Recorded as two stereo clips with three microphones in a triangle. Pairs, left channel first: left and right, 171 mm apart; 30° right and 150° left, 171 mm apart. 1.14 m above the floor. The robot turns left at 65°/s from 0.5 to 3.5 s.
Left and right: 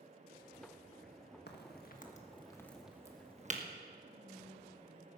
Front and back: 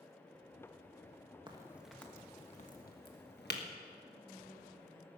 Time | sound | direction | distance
1.5 | a crack | 90° left | 1.4 m
4.0 | whispering | 145° right | 3.5 m